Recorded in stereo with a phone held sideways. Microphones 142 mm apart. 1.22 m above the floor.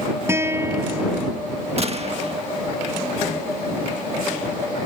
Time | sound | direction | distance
0.3 | a guitar | 20° right (ahead or behind) | ?
1.8 | a gunshot | 50° right (ahead or behind) | ?